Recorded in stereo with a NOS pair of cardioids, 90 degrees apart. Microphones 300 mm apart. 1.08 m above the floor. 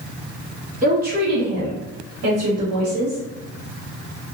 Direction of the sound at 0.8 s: 25° right.